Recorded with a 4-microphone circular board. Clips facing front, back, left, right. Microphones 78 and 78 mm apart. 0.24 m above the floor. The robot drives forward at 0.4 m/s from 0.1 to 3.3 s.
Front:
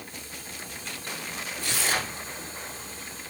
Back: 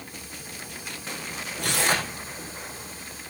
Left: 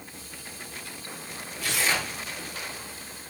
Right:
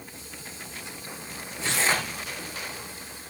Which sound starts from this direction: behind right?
Tearing paper, at 1.6 s.